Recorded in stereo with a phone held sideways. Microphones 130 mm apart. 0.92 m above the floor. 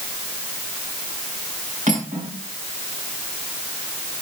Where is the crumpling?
No crumpling in this recording.